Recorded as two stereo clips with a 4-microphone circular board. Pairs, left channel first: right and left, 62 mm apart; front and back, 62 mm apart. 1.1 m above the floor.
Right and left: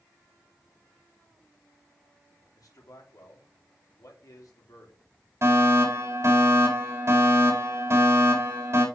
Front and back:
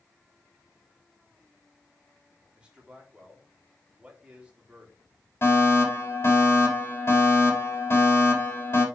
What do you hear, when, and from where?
2.5 s a man speaking: 110° right, 3.5 m
5.4 s a fire alarm: 45° left, 5 m